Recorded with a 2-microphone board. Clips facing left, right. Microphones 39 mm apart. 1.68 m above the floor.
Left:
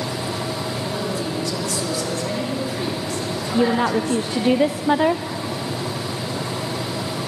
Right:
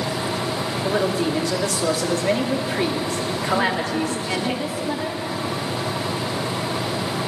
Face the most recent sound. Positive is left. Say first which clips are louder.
# left 5 dB
turn(degrees=45)  # may be behind; listen again after turning